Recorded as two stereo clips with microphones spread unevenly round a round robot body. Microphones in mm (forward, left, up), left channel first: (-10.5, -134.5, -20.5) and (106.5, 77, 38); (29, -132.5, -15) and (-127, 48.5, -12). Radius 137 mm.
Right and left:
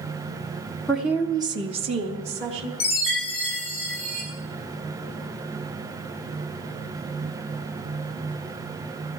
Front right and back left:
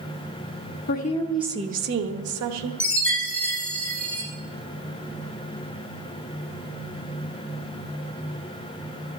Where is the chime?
135° right, 6.5 m.